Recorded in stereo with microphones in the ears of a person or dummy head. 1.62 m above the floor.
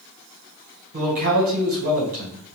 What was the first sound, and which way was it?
A man speaking, 50° right (ahead or behind).